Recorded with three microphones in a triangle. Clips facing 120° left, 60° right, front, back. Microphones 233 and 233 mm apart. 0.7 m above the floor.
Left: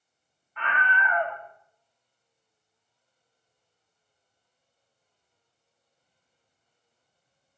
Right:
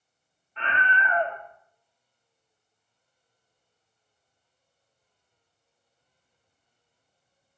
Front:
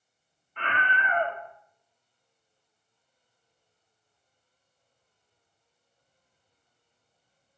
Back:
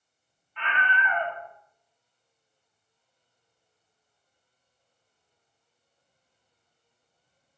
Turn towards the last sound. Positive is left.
turn(degrees=-5)